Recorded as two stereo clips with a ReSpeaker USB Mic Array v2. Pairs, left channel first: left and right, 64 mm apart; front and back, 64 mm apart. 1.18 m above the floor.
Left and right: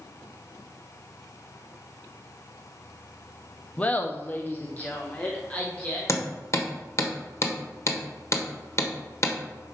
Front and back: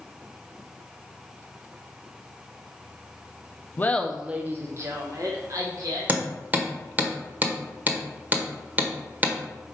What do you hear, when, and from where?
3.8 s laughter: 35° left, 0.5 m; by 6.0 s 160° left, 1.8 m
6.1 s hammering: 120° left, 1.3 m